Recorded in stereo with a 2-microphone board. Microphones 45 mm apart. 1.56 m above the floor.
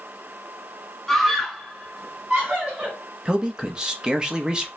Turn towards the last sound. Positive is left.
turn(degrees=-15)  # may be behind; listen again after turning